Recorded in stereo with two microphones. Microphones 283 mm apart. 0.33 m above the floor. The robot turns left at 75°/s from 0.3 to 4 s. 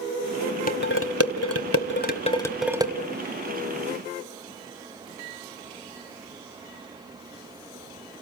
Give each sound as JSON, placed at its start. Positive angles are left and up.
{"t": 0.7, "sound": "dishes clattering", "side_deg": 30, "distance_m": 1.4}